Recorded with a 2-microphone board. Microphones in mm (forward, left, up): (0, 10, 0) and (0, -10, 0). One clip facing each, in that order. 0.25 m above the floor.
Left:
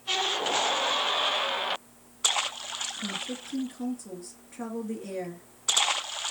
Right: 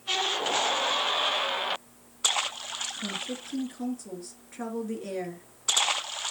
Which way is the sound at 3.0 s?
15° right (ahead or behind).